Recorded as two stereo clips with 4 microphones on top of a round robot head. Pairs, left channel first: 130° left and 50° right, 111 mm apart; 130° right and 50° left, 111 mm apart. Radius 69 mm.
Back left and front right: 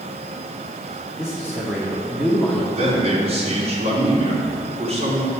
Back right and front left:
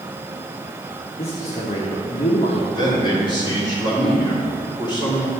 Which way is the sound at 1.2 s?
140° right.